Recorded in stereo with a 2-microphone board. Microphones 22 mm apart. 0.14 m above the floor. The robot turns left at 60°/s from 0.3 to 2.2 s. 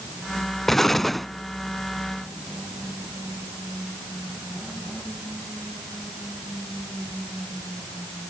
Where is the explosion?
15° left (ahead or behind), 0.6 m; by 1.3 s 5° left (ahead or behind), 0.6 m.